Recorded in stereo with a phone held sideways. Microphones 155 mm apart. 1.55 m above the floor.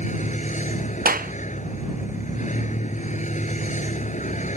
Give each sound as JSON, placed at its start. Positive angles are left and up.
{"t": 0.0, "sound": "a vehicle", "side_deg": 50}
{"t": 1.1, "sound": "a clap", "side_deg": -70}